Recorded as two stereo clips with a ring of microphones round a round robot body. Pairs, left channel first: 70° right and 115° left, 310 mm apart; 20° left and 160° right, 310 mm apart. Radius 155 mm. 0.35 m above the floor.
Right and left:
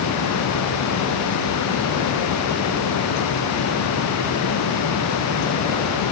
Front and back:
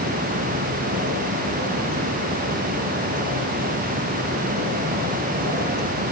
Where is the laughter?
No laughter in this recording.